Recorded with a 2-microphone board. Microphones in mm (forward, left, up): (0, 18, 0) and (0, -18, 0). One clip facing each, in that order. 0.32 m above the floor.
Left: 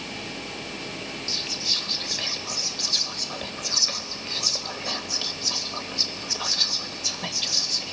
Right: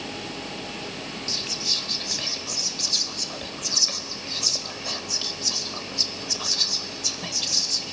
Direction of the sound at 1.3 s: 10° left (ahead or behind).